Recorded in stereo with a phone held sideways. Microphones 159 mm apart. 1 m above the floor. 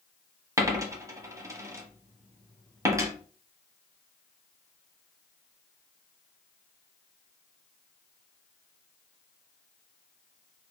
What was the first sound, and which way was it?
A dropped coin, 20° right (ahead or behind).